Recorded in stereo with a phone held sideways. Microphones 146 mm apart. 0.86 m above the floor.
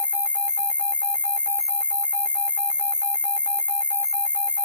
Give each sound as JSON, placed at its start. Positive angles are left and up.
{"t": 0.0, "sound": "an insect", "side_deg": -5, "distance_m": 0.7}